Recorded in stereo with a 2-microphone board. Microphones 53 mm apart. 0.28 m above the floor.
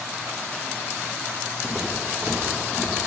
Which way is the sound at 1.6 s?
20° right (ahead or behind).